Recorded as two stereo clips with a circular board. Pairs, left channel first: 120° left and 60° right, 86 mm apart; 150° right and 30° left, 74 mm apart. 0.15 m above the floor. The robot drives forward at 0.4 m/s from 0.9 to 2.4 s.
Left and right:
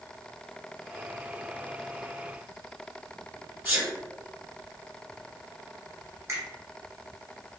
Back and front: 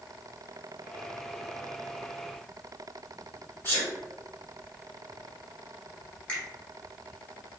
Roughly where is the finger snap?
Right.